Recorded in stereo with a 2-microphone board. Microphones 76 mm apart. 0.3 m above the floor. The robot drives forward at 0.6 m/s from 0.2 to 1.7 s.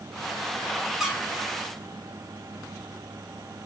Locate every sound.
1.0 s a squeak: 5° right (ahead or behind), 0.9 m